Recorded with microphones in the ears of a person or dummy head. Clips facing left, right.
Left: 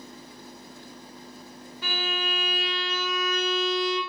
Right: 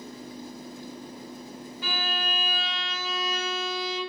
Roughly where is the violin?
Left.